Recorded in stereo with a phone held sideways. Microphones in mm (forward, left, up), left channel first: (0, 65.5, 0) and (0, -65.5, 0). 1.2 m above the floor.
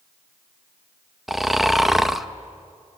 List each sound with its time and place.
1.3 s snoring: centre (ahead or behind), 0.7 m